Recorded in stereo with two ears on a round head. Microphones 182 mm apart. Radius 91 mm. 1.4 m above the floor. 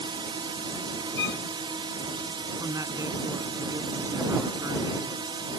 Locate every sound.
0.0 s a drone: 25° right (ahead or behind)
1.2 s a violin: 65° left (ahead or behind)
2.6 s a man speaking: 15° right (ahead or behind)